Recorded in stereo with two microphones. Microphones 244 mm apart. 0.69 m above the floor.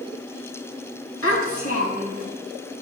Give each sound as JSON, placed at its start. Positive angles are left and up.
{"t": 1.2, "sound": "a child speaking", "side_deg": 65, "distance_m": 4.5}